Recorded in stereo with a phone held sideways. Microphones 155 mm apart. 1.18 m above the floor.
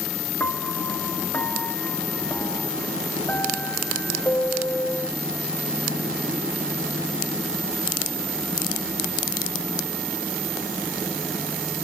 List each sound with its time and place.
0.4 s a piano: 15° left (ahead or behind)